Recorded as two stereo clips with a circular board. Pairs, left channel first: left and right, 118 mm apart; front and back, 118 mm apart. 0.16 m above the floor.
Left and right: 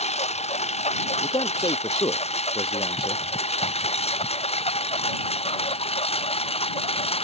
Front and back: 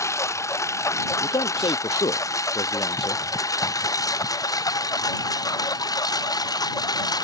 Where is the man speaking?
45° left.